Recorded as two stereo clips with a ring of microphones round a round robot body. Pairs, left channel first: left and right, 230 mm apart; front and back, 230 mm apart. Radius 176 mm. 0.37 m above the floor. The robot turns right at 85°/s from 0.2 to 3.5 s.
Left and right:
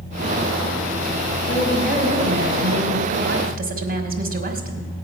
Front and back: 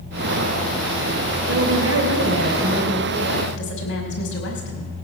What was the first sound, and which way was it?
A woman speaking, 145° left.